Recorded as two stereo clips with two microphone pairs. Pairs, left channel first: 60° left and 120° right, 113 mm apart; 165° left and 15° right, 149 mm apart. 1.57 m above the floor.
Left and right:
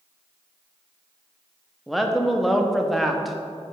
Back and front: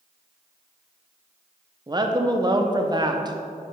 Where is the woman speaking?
30° right, 0.5 m.